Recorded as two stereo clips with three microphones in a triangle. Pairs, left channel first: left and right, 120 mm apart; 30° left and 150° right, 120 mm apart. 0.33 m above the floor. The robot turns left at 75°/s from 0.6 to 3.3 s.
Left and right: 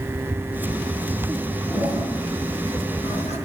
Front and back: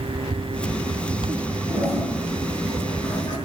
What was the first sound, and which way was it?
A toilet flushing, 160° right.